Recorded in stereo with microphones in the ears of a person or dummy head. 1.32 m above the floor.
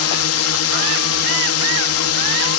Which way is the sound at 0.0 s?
80° left.